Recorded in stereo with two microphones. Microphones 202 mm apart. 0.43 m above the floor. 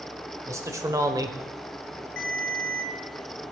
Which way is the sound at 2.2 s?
45° right (ahead or behind).